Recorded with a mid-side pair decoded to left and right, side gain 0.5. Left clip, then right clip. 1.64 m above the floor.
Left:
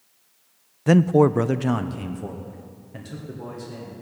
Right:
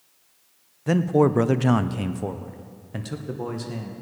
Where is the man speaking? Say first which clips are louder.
Left 3 dB; 40° left, 0.5 m; by 3.9 s 50° right, 2 m.